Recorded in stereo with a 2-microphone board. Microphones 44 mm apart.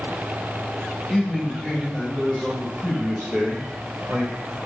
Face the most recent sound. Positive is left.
turn(degrees=-60)  # may be behind; listen again after turning